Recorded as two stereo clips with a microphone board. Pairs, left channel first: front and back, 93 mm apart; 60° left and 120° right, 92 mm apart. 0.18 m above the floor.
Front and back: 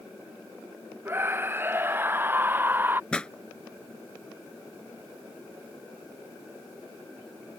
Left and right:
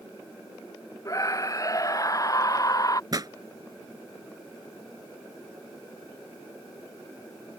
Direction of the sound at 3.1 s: 80° right.